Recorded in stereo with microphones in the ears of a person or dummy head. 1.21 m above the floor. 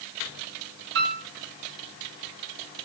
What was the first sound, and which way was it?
A piano, 65° right (ahead or behind).